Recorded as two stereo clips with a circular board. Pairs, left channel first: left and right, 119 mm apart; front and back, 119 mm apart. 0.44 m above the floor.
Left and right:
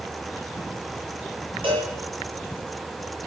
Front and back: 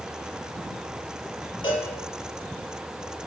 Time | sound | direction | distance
1.6 | a cowbell | 50° right | 9.5 m